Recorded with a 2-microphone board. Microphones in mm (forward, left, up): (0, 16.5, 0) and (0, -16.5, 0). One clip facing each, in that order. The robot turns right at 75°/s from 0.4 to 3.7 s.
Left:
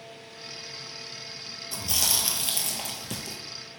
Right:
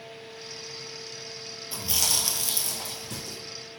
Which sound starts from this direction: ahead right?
Chewing, at 1.7 s.